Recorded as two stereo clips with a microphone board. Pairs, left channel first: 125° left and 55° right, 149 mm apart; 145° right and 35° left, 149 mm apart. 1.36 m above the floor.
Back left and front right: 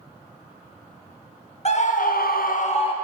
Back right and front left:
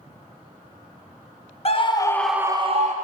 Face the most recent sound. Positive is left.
turn(degrees=70)